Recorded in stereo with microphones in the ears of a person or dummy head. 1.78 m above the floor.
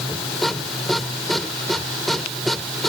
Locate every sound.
0.0 s a machine running: 5° left (ahead or behind)